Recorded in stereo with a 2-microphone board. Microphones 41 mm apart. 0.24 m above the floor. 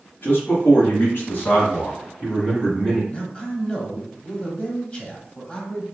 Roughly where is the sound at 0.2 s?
Left.